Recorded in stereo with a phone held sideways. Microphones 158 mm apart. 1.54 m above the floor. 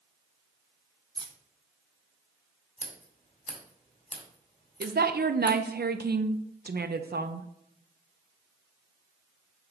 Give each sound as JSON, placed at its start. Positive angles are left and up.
{"t": 1.1, "sound": "keys jangling", "side_deg": -25, "distance_m": 0.8}
{"t": 2.8, "sound": "scissors", "side_deg": 50, "distance_m": 1.7}
{"t": 4.8, "sound": "a woman speaking", "side_deg": -75, "distance_m": 0.5}